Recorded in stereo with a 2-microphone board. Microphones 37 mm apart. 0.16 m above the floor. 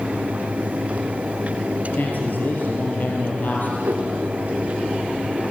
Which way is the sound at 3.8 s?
70° right (ahead or behind).